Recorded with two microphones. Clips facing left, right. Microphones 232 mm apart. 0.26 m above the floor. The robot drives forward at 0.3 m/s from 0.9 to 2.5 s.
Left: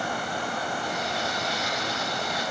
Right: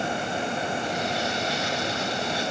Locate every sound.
Only background noise.